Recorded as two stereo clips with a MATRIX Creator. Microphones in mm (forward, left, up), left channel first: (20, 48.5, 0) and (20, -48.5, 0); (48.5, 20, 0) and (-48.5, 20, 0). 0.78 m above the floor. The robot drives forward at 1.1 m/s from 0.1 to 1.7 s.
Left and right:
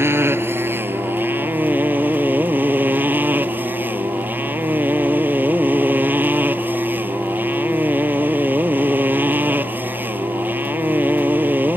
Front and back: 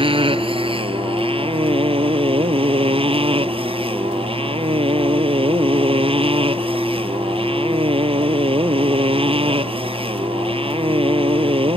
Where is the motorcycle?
155° right; by 11.8 s 160° right.